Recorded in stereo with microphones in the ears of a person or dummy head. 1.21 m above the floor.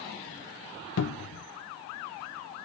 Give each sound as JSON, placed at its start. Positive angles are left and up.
{"t": 1.0, "sound": "a cupboard door", "side_deg": 70, "distance_m": 0.6}